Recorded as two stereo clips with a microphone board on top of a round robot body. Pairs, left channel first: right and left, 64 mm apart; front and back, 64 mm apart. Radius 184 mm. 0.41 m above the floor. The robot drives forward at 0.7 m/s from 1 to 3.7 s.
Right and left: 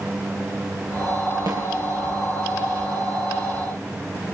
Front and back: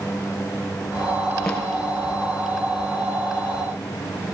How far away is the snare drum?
About 5 m.